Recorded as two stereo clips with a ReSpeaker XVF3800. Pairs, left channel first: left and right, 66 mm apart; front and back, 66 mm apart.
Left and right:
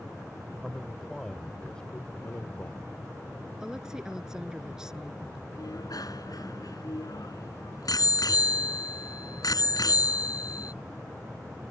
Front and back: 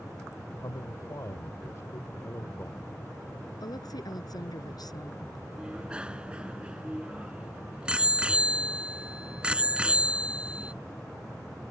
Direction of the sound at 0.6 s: Straight ahead.